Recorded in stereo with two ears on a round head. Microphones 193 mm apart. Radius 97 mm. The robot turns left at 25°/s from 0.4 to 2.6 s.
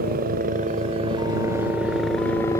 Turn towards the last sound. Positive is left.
turn(degrees=165)